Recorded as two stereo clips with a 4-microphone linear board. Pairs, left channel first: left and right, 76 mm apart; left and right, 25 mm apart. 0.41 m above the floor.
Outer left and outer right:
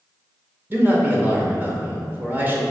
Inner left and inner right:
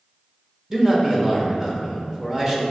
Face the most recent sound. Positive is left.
turn(degrees=-25)  # may be behind; listen again after turning